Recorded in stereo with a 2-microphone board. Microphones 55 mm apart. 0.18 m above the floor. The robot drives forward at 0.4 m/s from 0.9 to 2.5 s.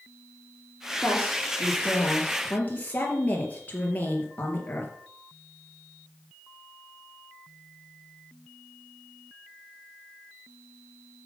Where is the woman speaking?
30° left (ahead or behind), 4 m.